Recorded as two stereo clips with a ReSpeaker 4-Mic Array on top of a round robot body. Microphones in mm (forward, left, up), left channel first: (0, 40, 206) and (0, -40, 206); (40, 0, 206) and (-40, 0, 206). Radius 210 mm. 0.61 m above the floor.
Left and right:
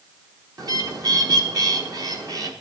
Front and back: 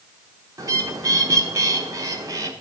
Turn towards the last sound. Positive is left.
turn(degrees=-130)